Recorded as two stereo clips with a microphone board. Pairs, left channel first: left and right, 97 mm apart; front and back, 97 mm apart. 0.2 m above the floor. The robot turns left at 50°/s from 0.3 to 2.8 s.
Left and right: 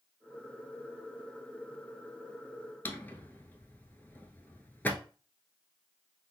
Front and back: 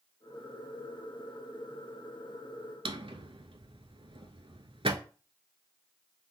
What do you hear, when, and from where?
2.9 s a drawer: 160° left, 0.6 m